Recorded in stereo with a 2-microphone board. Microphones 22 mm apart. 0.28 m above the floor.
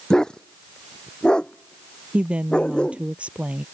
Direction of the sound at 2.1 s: 70° right (ahead or behind).